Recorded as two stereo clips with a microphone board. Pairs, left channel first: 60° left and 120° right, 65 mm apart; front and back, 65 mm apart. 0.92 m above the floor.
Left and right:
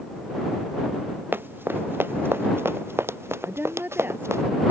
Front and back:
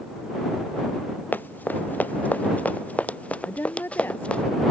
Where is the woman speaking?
60° right.